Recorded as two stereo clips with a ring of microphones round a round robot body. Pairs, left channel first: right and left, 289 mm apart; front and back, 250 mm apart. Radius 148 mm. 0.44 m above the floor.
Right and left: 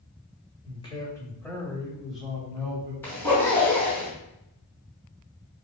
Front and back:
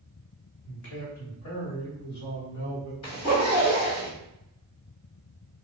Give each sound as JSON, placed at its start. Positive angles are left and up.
{"t": 0.7, "sound": "a man speaking", "azimuth_deg": -25, "distance_m": 2.0}
{"t": 3.0, "sound": "a zipper", "azimuth_deg": -5, "distance_m": 2.5}